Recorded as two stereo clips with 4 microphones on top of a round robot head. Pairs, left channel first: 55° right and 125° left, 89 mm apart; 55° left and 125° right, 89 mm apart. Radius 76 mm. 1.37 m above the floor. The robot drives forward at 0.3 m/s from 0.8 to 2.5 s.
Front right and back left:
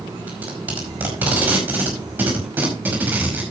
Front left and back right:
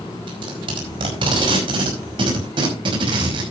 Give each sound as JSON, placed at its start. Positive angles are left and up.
{"t": 0.3, "sound": "tape being pulled", "azimuth_deg": -160, "distance_m": 5.0}